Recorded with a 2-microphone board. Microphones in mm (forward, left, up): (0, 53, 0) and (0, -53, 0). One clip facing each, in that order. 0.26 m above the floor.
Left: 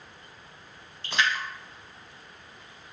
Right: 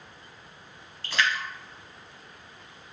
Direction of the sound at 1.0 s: 20° left (ahead or behind).